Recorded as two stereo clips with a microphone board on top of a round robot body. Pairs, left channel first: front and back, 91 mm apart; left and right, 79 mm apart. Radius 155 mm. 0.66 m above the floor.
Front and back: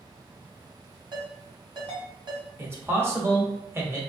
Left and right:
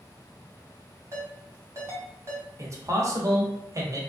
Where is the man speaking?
125° right, 1.1 m.